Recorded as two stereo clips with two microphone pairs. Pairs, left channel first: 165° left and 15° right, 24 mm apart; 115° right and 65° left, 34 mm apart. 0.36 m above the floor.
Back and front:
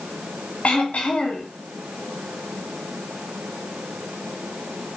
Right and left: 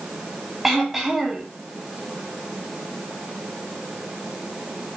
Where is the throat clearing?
145° left, 2.5 m.